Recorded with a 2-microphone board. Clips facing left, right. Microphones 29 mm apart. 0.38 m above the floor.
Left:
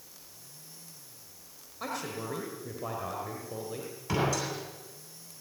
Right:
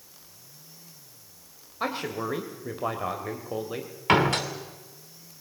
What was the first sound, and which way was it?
A man speaking, 35° right (ahead or behind).